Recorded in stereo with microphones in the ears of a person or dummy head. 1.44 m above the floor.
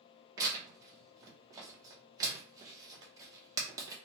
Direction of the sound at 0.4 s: 20° right (ahead or behind).